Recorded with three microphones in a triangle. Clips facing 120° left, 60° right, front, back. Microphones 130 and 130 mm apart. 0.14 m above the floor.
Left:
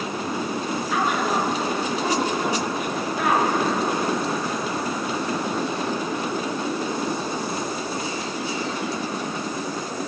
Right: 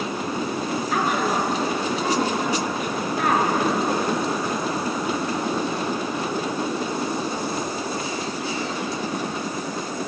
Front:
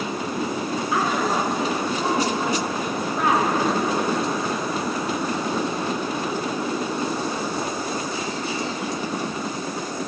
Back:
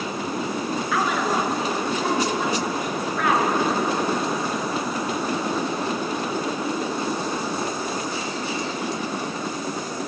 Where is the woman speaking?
55° right, 1.8 m.